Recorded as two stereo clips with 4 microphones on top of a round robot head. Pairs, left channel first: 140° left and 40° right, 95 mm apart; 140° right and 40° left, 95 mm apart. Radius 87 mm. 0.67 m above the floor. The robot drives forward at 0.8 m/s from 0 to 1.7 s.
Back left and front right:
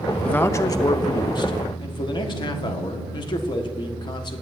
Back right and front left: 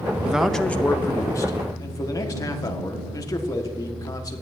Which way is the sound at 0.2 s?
90° left.